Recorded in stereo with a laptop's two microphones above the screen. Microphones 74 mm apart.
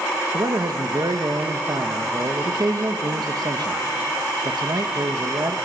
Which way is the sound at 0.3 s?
65° right (ahead or behind).